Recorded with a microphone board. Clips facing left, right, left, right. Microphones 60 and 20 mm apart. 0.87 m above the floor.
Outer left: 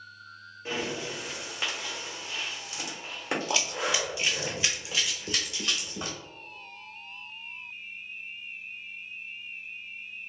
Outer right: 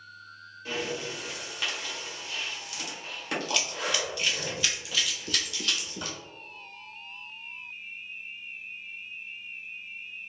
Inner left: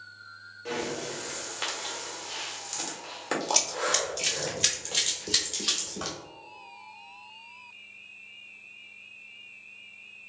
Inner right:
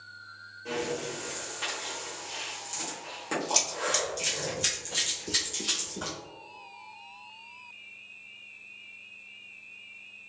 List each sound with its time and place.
0.7 s breathing: 25° left (ahead or behind), 1.2 m
3.5 s running footsteps: 5° left (ahead or behind), 0.9 m; by 6.2 s 25° left (ahead or behind), 1.6 m